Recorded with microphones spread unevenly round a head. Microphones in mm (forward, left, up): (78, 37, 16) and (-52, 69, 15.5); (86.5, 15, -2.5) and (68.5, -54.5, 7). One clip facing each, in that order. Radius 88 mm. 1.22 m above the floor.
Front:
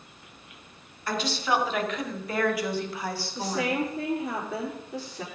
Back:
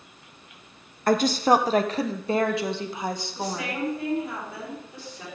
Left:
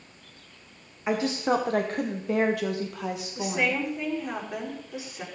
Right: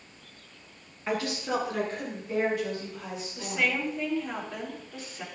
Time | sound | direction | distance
1.1 | a woman speaking | 145° left | 0.8 m
3.4 | a woman speaking | straight ahead | 4 m